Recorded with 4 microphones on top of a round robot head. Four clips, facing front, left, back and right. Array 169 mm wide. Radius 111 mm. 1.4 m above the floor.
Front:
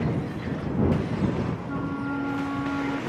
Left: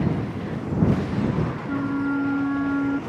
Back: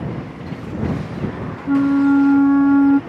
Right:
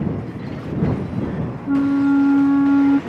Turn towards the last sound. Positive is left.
turn(degrees=-150)